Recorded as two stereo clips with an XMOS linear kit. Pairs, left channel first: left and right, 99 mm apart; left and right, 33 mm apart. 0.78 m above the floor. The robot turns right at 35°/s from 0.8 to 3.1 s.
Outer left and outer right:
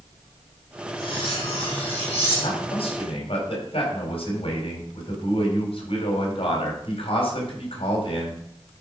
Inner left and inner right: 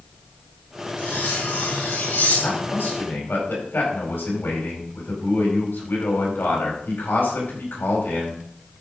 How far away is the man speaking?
About 4.5 m.